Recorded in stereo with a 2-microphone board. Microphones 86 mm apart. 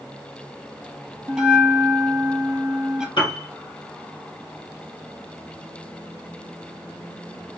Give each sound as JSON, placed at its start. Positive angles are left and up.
{"t": 1.3, "sound": "a bell", "side_deg": -10, "distance_m": 0.7}
{"t": 3.2, "sound": "a piano", "side_deg": 80, "distance_m": 1.9}